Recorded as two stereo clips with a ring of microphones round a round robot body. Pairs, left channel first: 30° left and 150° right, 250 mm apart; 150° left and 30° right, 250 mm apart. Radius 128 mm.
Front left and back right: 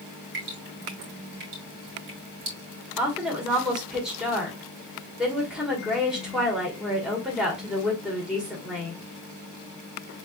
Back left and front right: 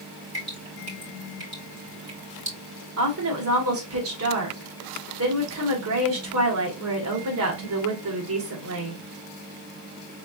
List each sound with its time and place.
0.3 s dripping: 105° right, 4 m
3.0 s a woman speaking: 65° right, 2 m